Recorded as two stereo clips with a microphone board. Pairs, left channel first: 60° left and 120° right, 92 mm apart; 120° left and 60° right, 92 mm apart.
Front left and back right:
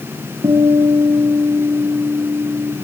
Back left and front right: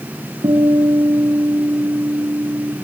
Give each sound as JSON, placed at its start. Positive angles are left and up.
{"t": 0.4, "sound": "a guitar", "azimuth_deg": -85, "distance_m": 6.5}